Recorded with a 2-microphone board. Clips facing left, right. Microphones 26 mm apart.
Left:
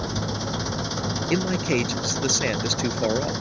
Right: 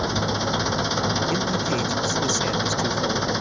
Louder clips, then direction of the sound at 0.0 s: Right 5 dB; 25° right (ahead or behind).